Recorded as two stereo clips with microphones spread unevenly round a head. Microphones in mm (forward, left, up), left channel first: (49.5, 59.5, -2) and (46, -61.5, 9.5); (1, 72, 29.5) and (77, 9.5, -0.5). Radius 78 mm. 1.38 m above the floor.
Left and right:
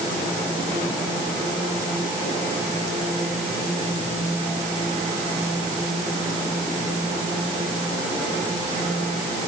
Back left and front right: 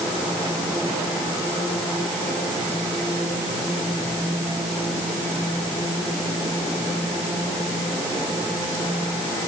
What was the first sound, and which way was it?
Only background noise.